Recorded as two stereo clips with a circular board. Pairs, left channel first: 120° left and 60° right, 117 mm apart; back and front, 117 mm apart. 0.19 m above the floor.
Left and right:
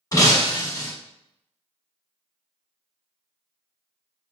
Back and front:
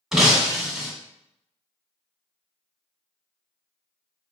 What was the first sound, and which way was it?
Breaking glass, 85° left.